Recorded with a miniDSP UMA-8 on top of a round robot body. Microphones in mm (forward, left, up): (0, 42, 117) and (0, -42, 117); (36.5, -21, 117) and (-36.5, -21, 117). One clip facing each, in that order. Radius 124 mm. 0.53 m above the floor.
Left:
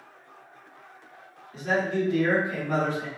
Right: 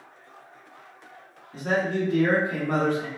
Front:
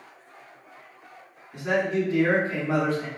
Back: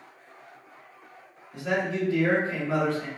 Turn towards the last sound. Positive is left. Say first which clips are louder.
# right 1 dB, front 3 dB
turn(degrees=-60)